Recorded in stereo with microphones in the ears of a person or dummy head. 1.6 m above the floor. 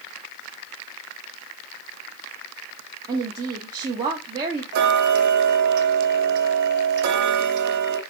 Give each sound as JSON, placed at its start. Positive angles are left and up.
{"t": 3.1, "sound": "a woman speaking", "side_deg": -25, "distance_m": 0.6}
{"t": 4.7, "sound": "ticking", "side_deg": -60, "distance_m": 0.6}